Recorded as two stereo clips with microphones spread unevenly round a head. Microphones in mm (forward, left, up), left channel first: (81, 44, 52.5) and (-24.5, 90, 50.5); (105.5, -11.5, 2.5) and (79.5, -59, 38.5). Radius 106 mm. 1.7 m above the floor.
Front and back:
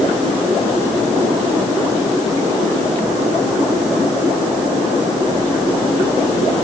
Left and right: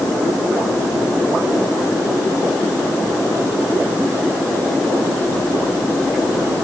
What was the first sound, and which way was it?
Only background noise.